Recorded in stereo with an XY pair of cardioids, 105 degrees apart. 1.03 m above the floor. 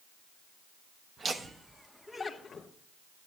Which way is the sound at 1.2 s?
35° right.